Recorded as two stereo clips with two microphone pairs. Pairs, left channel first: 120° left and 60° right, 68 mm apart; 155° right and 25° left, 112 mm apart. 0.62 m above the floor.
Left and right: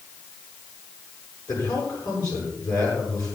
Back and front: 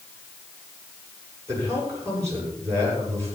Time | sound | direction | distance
1.5 | a man speaking | 90° left | 9 m